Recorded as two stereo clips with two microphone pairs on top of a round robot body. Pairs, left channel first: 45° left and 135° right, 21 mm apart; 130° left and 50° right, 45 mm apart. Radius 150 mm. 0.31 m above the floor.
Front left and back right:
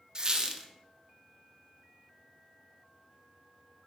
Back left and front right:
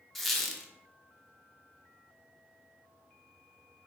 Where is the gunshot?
No gunshot in this recording.